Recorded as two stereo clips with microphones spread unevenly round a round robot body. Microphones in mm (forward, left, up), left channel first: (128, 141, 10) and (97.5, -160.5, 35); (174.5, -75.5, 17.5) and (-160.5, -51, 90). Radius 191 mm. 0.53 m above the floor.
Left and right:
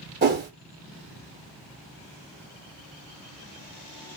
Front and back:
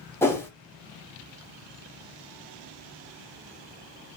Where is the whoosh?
65° right, 1.0 m.